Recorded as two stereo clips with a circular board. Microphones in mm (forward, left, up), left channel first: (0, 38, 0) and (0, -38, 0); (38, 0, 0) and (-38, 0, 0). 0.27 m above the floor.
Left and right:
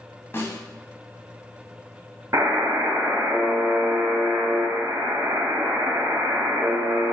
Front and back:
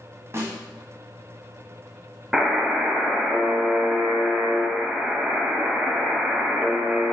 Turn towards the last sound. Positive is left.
turn(degrees=-100)